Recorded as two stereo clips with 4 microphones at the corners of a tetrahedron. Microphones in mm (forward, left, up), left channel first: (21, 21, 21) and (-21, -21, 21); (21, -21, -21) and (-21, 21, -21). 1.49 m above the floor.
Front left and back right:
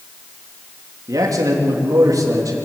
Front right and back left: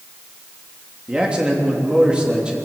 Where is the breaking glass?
I don't hear breaking glass.